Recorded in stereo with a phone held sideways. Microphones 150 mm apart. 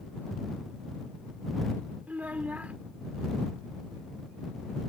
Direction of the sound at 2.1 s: 10° right (ahead or behind).